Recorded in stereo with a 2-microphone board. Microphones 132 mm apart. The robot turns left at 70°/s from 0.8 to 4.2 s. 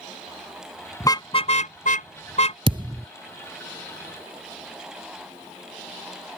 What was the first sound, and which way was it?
A car horn, 20° left (ahead or behind).